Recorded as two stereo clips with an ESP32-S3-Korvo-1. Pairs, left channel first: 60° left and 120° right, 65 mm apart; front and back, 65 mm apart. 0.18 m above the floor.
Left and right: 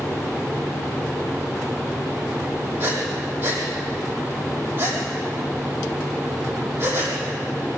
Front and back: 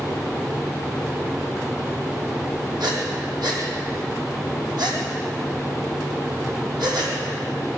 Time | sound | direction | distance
2.8 | breathing | straight behind | 6 m